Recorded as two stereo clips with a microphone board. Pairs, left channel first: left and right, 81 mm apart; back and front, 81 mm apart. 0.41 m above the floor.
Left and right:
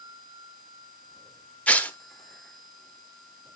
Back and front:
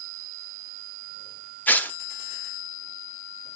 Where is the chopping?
No chopping in this recording.